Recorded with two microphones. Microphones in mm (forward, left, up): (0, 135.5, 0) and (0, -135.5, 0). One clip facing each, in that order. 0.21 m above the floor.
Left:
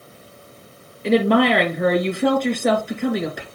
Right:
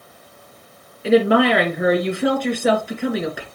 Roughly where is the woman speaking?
Centre.